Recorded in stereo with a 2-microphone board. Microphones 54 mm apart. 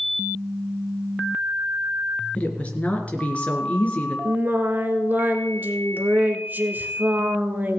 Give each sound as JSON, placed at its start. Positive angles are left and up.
{"t": 2.4, "sound": "a woman speaking", "side_deg": 25, "distance_m": 3.0}
{"t": 4.2, "sound": "singing", "side_deg": -40, "distance_m": 1.2}